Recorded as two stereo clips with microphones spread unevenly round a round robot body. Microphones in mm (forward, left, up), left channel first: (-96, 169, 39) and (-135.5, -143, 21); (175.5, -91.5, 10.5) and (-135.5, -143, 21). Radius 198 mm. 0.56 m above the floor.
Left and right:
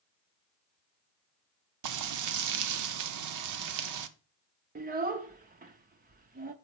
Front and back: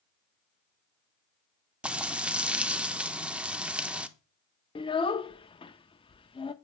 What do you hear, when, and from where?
1.8 s frying: 85° right, 0.8 m
4.8 s a child speaking: 55° right, 0.5 m